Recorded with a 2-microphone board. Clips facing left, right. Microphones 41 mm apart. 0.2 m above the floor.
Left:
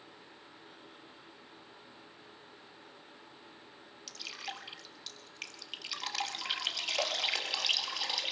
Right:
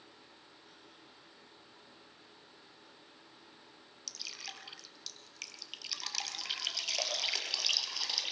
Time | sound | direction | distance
4.1 | dripping | 15° left (ahead or behind) | 4 m